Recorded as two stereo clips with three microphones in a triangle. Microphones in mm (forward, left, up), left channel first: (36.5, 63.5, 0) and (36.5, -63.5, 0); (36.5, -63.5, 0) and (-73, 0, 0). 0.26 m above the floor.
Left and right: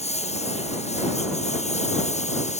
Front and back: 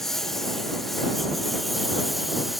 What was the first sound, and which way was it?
A lawn mower, 60° left.